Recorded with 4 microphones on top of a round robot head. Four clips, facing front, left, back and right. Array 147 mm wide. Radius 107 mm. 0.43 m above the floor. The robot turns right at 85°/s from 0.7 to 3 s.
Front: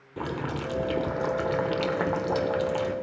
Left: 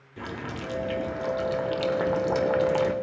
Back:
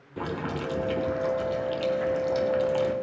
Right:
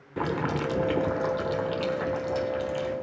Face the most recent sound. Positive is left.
turn(degrees=110)